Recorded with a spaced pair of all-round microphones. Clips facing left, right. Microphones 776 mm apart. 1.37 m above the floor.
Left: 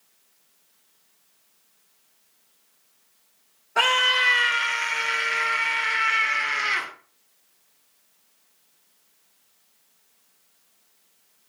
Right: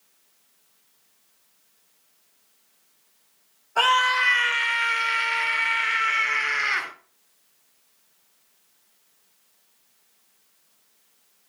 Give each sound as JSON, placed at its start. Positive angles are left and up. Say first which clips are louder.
{"t": 3.8, "sound": "a scream", "louder": "even", "side_deg": 55, "distance_m": 1.2}